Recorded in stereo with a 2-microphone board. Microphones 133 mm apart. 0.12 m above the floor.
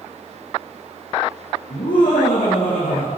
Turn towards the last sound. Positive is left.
turn(degrees=80)